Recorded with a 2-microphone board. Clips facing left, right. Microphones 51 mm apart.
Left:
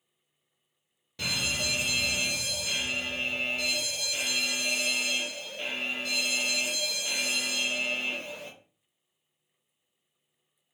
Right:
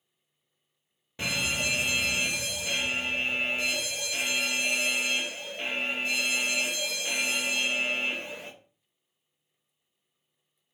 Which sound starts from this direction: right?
A fire alarm, at 1.2 s.